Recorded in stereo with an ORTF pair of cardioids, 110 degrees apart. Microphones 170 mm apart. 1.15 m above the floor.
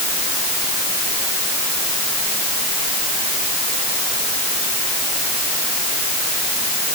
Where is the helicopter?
No helicopter in this recording.